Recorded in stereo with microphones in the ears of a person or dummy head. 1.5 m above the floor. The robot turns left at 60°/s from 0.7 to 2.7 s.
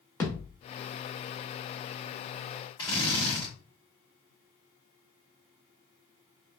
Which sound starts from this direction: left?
A drill, at 2.8 s.